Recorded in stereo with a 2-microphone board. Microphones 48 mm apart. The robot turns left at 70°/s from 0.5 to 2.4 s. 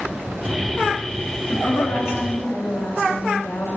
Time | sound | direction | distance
1.5 | a woman speaking | 125° left | 2.5 m